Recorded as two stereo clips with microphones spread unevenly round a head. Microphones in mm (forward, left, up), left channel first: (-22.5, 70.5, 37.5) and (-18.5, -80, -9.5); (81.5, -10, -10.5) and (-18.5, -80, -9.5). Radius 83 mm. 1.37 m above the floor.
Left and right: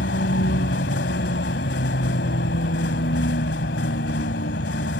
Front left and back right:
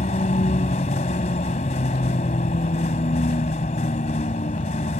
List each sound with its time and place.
0.0 s a vehicle: 85° left